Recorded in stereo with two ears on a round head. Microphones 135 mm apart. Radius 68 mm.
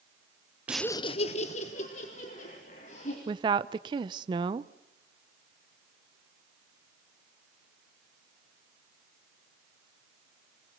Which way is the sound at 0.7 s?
10° right (ahead or behind).